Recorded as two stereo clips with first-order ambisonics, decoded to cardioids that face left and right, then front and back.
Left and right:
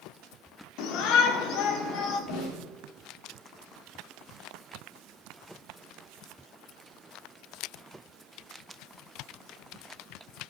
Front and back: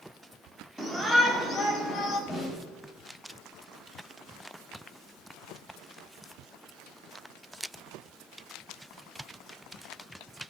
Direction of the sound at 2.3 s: 70° left.